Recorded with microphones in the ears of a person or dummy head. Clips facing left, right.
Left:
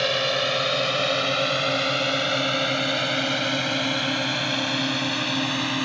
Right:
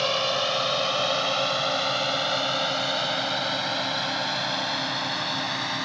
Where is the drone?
25° left (ahead or behind); by 5.9 s 40° left (ahead or behind).